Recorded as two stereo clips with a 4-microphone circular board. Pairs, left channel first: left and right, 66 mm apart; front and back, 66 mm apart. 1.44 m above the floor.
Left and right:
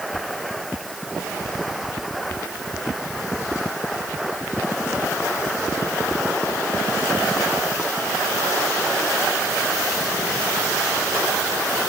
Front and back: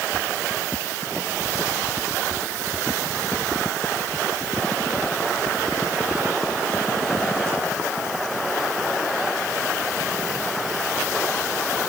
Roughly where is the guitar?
No guitar in this recording.